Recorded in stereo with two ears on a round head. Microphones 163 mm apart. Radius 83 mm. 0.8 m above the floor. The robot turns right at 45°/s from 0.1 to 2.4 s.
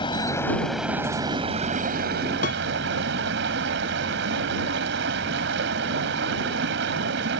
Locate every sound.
0.0 s running water: 150° left; by 7.4 s 105° right
2.4 s a piano: 45° left (ahead or behind)